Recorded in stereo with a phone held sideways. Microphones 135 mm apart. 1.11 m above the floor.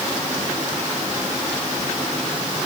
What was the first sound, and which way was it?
Only background noise.